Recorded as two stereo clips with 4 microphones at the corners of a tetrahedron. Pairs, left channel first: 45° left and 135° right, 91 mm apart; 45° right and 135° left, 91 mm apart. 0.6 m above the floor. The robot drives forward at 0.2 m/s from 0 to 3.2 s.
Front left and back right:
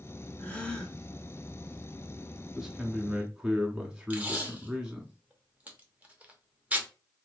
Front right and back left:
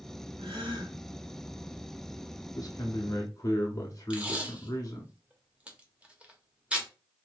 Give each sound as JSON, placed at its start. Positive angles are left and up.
{"t": 0.4, "sound": "a gasp", "azimuth_deg": 120, "distance_m": 0.8}
{"t": 2.5, "sound": "a man speaking", "azimuth_deg": -50, "distance_m": 0.9}
{"t": 4.1, "sound": "tape being pulled", "azimuth_deg": -175, "distance_m": 0.7}